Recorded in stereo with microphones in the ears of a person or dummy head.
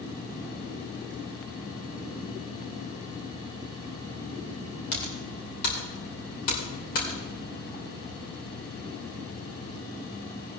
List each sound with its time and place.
4.9 s typing on a keyboard: 50° left (ahead or behind), 2 m